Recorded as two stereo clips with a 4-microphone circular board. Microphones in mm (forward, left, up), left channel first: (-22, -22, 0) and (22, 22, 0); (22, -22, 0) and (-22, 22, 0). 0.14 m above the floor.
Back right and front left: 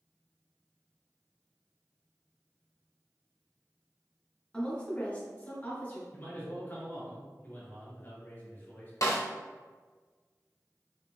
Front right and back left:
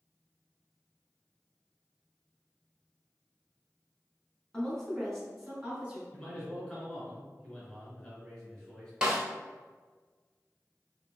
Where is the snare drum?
150° right, 1.0 m.